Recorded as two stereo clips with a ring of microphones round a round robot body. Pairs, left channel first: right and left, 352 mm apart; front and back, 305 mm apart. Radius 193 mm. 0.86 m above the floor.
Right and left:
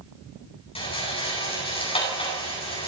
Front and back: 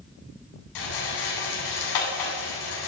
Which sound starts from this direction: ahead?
A rattle, at 0.8 s.